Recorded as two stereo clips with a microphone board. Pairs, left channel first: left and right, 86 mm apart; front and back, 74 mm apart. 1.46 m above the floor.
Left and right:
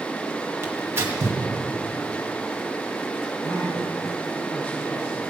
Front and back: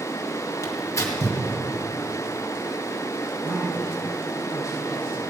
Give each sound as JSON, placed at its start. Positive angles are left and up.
{"t": 0.6, "sound": "tearing paper", "azimuth_deg": -40, "distance_m": 2.0}
{"t": 3.4, "sound": "a man speaking", "azimuth_deg": 140, "distance_m": 3.5}